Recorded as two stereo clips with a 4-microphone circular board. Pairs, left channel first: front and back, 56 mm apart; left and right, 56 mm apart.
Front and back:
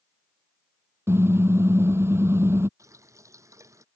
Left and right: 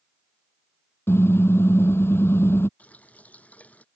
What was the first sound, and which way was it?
A car horn, 135° left.